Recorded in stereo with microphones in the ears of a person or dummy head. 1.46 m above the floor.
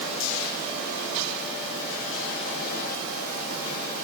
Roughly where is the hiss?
No hiss in this recording.